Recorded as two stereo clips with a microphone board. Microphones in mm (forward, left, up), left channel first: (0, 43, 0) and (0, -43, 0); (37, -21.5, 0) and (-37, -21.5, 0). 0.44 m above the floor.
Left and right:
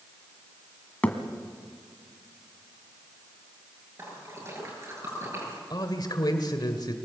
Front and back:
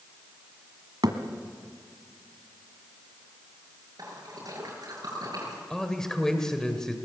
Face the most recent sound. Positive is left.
turn(degrees=80)